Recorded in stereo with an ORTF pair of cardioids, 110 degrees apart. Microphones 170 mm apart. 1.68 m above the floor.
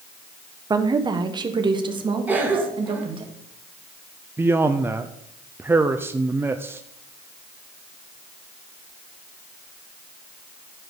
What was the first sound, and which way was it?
A woman speaking, 20° right.